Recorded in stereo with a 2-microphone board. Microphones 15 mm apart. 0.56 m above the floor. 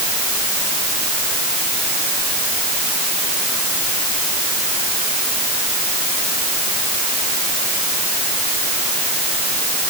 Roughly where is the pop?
I don't hear a pop.